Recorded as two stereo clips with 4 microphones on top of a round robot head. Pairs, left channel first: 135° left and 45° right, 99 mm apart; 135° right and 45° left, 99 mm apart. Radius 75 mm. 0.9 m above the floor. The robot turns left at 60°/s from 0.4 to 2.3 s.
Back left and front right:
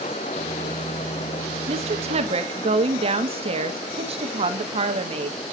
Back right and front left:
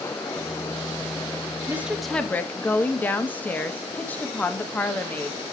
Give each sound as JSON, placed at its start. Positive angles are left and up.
{"t": 1.7, "sound": "a woman speaking", "azimuth_deg": -25, "distance_m": 1.5}